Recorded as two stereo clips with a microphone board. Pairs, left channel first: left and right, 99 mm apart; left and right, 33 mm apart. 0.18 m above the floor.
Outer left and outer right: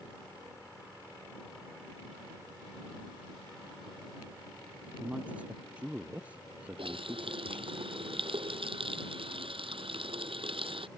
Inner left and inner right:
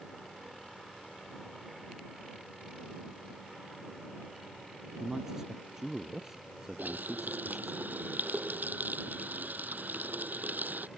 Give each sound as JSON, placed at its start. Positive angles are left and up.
{"t": 5.0, "sound": "a man speaking", "side_deg": -15}
{"t": 6.8, "sound": "a running tap", "side_deg": -75}